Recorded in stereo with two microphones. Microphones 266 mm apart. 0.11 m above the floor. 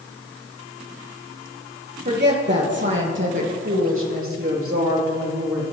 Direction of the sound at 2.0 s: 40° right (ahead or behind).